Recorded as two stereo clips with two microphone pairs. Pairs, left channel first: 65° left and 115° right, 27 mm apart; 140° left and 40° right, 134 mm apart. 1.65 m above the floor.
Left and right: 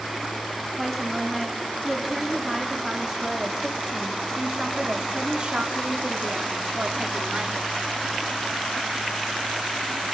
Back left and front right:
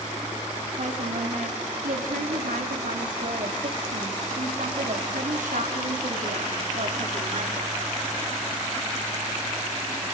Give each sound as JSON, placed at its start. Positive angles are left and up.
{"t": 0.8, "sound": "a woman speaking", "azimuth_deg": -20, "distance_m": 4.0}